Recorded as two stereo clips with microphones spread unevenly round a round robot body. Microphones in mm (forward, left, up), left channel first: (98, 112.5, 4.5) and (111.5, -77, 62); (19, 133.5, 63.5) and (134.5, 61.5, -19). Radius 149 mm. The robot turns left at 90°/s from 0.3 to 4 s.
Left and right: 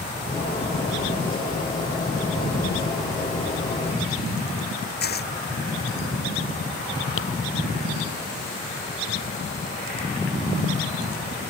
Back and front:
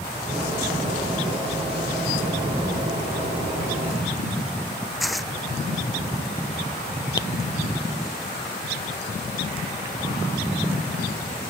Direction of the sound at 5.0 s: 60° left.